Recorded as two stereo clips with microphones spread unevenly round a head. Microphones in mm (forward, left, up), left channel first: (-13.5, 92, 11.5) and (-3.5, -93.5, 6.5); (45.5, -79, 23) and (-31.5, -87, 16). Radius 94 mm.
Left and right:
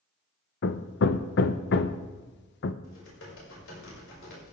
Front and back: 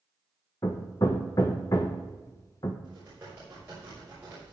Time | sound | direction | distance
0.6 | hammering | 70° left | 0.7 m
2.8 | typing on a keyboard | 115° left | 5 m